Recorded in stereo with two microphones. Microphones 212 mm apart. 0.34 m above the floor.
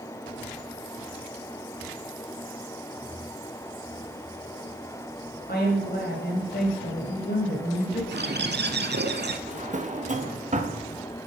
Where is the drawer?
35° right (ahead or behind), 0.6 m.